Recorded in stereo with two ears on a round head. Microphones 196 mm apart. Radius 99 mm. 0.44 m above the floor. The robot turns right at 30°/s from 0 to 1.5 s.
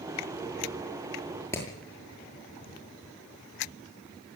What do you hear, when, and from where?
1.5 s hammering: 15° left (ahead or behind), 8 m